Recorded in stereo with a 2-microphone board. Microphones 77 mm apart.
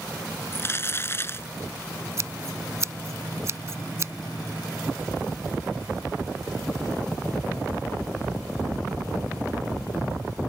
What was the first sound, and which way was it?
Crumpling, 35° left (ahead or behind).